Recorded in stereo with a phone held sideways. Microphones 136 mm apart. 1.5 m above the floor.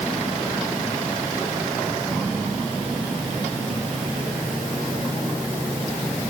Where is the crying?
No crying in this recording.